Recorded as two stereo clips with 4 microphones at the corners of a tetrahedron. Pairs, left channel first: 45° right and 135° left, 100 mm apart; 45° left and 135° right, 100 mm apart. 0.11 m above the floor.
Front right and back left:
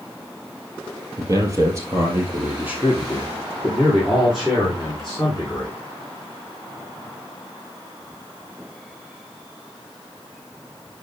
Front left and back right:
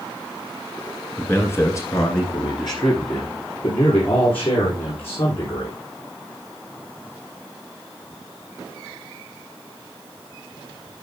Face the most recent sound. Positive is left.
turn(degrees=40)